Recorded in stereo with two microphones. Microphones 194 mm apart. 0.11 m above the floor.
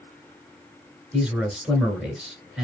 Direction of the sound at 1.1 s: 5° right (ahead or behind).